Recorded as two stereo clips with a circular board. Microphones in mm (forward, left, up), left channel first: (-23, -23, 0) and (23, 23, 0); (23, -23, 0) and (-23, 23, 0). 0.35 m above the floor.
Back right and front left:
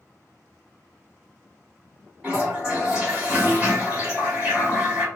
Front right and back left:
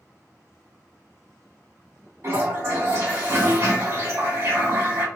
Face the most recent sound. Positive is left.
turn(degrees=110)